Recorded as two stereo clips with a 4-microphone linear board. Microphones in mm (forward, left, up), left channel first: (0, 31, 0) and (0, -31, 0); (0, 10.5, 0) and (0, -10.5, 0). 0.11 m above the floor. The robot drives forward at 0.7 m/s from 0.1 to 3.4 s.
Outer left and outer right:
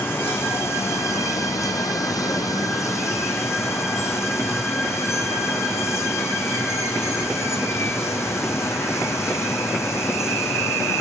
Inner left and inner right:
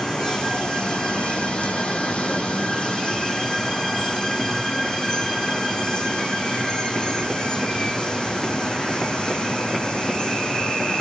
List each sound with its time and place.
0.0 s running water: 40° left (ahead or behind), 1.8 m; by 11.0 s 50° left (ahead or behind), 1.5 m